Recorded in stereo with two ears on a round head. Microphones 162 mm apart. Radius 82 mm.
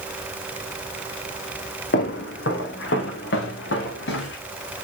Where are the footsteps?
60° left (ahead or behind), 3.5 m.